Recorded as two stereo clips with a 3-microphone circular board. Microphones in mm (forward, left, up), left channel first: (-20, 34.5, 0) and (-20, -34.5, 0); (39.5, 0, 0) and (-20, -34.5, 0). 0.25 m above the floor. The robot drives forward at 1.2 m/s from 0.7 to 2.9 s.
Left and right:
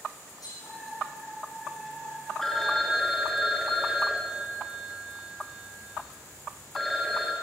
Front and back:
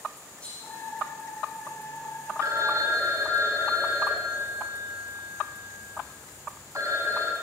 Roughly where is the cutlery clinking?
Left.